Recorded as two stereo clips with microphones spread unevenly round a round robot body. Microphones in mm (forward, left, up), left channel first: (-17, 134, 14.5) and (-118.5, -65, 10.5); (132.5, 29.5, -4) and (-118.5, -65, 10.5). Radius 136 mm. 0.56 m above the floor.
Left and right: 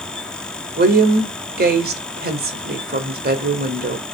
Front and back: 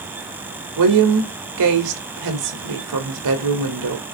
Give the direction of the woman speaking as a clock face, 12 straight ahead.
5 o'clock.